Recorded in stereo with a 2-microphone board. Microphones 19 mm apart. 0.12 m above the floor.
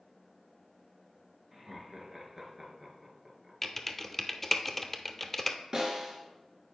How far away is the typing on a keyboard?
About 0.8 m.